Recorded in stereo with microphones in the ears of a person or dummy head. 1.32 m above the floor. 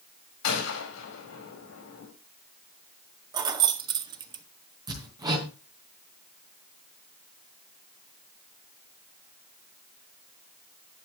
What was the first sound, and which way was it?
A gunshot, 90° left.